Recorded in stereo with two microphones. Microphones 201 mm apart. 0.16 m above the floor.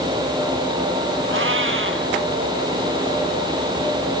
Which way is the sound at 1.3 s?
75° right (ahead or behind).